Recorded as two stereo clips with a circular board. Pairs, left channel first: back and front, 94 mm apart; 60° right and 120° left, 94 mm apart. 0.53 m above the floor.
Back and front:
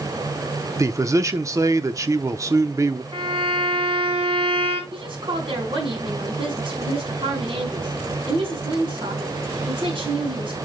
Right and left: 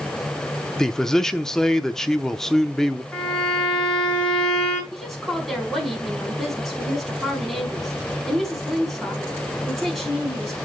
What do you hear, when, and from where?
0.8 s a man speaking: 20° left, 0.7 m
3.1 s a violin: 25° left, 5.5 m
4.9 s a woman speaking: 30° left, 5 m